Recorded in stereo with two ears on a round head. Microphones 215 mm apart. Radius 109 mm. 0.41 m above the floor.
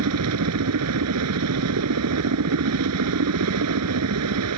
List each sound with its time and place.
0.0 s a helicopter: 70° right (ahead or behind)